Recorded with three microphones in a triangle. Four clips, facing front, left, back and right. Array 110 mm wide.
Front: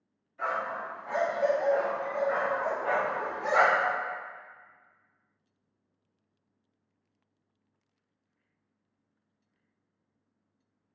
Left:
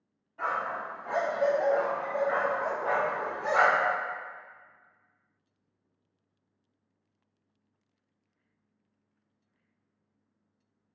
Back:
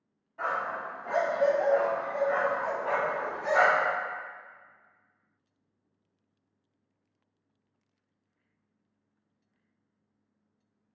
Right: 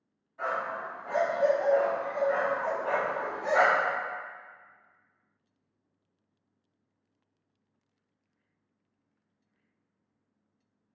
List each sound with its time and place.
0.4 s a dog barking: 160° left, 1.1 m; by 3.9 s 15° left, 1.0 m